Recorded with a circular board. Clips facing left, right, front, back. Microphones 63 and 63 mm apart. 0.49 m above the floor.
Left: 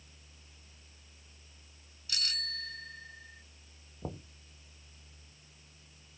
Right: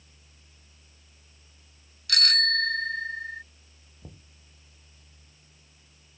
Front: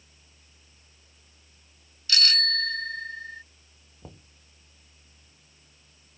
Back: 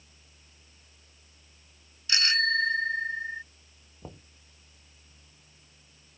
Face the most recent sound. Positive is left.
turn(degrees=100)